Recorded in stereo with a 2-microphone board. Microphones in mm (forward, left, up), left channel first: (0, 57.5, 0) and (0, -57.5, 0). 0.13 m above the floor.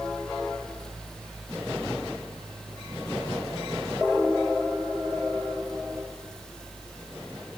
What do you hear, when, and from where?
Only background noise.